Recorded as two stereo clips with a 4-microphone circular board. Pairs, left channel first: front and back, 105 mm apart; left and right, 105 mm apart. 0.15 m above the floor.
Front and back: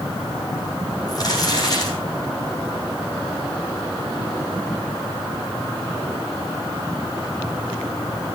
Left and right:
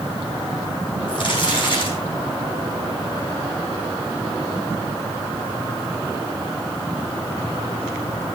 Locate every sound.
1.1 s crumpling: 50° left, 7.5 m